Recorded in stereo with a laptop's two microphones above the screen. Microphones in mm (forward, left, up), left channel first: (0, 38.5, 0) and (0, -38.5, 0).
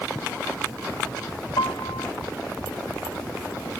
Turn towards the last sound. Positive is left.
turn(degrees=80)